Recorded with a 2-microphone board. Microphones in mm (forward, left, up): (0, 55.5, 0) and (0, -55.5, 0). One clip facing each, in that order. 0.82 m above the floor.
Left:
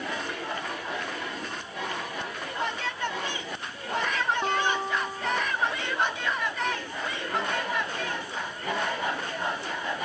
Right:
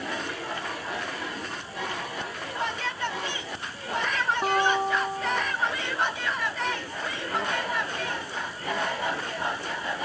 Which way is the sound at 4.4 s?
10° right (ahead or behind).